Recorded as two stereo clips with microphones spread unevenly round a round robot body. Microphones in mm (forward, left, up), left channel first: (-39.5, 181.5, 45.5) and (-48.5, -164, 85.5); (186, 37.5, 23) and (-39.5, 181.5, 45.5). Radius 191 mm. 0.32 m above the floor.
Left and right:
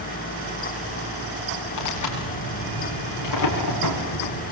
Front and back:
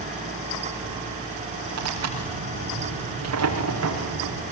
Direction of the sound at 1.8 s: 125° left.